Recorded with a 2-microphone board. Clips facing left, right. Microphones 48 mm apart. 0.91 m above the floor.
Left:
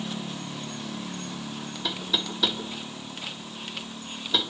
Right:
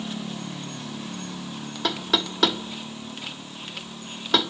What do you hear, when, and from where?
1.8 s knocking: 65° right (ahead or behind), 1.5 m